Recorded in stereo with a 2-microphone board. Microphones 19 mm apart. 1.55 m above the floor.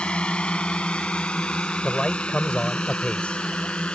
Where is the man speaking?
85° left.